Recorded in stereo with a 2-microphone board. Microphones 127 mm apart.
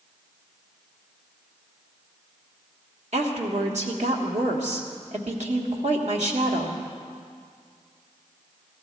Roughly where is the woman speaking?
Right.